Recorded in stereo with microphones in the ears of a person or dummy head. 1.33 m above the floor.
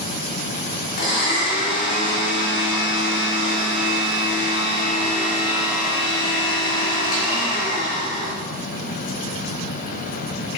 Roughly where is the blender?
Left.